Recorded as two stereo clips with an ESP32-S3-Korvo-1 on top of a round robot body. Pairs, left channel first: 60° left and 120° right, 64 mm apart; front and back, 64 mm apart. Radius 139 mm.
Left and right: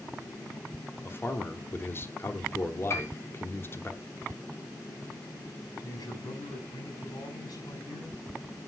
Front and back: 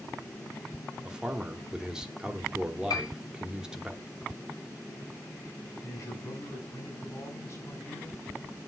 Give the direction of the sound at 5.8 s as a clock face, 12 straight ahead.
11 o'clock.